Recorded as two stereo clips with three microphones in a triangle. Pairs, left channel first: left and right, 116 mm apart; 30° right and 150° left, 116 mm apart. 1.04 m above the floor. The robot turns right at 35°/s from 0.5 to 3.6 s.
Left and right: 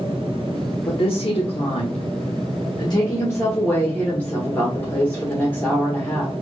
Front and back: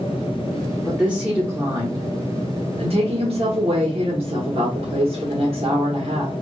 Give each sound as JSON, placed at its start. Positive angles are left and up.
{"t": 0.9, "sound": "a woman speaking", "azimuth_deg": 65, "distance_m": 1.2}